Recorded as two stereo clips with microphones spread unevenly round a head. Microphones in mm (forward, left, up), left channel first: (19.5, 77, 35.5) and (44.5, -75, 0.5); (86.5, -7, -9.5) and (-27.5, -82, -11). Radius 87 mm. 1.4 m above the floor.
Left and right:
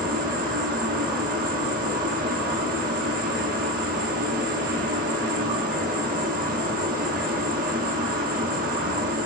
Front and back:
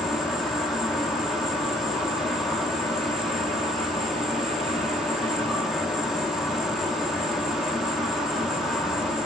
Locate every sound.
0.0 s an insect: 60° right, 0.7 m